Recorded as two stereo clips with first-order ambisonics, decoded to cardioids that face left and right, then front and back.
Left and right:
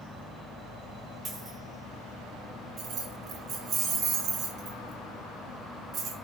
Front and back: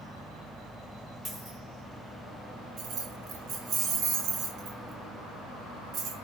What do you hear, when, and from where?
1.2 s a dropped coin: 115° right, 1.3 m
2.8 s keys jangling: 135° right, 0.6 m